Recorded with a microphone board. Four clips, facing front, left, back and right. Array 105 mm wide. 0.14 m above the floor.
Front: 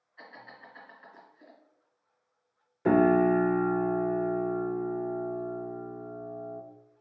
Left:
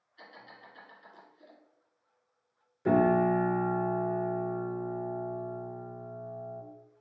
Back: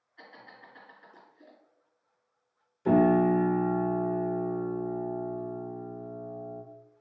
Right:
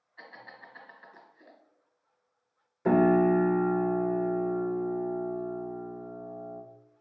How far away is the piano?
About 0.9 m.